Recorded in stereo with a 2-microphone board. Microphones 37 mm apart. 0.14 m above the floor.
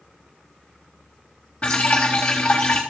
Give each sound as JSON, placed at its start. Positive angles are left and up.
{"t": 1.6, "sound": "dripping", "side_deg": 35, "distance_m": 3.5}